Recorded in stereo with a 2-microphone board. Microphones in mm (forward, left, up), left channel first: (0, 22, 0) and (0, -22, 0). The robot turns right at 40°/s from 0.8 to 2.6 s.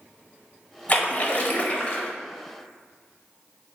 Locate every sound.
0.9 s a splash: 70° left, 0.6 m; by 2.1 s 120° left, 0.6 m